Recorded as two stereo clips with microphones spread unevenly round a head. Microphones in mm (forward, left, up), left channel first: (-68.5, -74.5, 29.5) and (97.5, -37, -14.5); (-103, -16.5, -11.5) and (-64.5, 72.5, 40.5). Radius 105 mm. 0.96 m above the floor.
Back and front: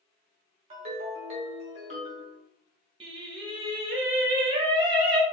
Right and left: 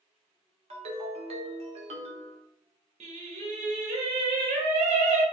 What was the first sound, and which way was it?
A ringtone, 75° left.